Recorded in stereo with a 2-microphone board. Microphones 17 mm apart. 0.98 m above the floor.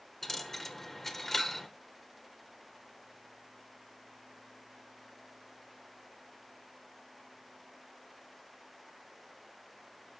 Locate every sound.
0.2 s a dropped coin: 15° left (ahead or behind), 1.2 m